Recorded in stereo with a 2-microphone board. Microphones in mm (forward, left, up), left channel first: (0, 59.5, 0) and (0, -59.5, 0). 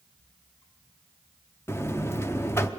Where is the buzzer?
20° left (ahead or behind), 0.7 m.